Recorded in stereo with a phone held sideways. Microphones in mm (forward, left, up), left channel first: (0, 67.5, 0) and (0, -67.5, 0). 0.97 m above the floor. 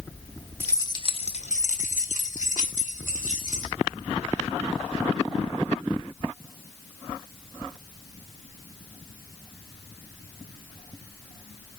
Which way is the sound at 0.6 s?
15° left (ahead or behind).